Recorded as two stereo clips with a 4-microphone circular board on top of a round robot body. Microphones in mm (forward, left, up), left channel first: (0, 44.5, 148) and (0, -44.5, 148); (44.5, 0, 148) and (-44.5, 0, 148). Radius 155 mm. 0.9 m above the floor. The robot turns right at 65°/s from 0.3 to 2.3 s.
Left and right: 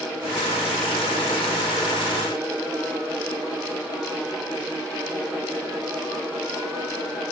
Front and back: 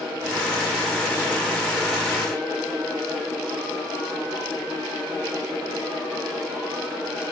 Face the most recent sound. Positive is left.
No sound to turn to.